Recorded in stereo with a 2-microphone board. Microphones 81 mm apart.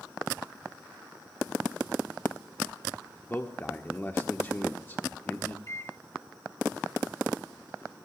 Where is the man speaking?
25° left (ahead or behind), 1.2 m.